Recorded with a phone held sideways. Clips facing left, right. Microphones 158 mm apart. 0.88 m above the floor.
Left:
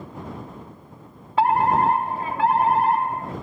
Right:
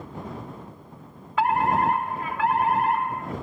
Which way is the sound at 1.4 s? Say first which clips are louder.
Left 3 dB; 30° left (ahead or behind).